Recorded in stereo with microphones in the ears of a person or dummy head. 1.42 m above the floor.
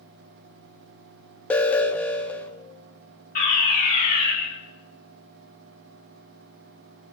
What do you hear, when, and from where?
1.5 s an alarm: 10° left (ahead or behind), 1.5 m
3.4 s a fire alarm: 50° left (ahead or behind), 7.5 m